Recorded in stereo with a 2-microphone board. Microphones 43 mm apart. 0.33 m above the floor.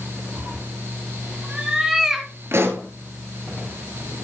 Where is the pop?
65° right (ahead or behind), 1.6 m.